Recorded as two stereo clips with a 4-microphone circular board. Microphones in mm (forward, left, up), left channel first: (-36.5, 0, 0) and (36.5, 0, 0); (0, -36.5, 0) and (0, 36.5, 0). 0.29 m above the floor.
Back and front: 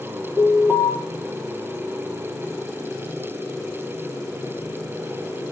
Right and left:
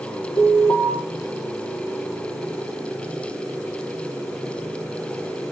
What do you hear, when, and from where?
0.4 s an alarm: 70° right, 8 m